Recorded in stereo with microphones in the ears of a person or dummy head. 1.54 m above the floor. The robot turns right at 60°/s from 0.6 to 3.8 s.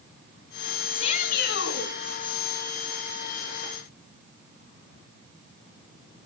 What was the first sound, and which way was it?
A shout, 25° left.